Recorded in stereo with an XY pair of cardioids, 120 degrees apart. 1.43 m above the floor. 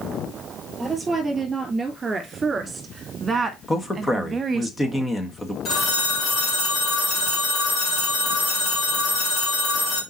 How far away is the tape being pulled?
No tape being pulled in this recording.